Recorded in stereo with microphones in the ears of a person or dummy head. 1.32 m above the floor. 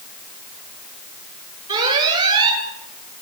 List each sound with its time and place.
1.7 s an alarm: 20° right (ahead or behind), 8.5 m